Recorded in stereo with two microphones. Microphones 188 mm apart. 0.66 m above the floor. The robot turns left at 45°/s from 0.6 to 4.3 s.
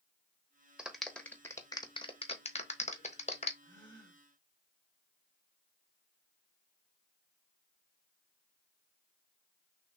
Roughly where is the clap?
Centre.